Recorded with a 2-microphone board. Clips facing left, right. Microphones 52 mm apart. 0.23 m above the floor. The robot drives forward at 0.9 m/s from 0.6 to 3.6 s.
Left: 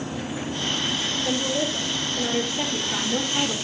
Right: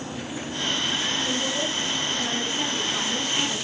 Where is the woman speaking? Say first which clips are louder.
Left 2 dB; 25° left (ahead or behind), 7 m; by 3.6 s 35° left (ahead or behind), 5 m.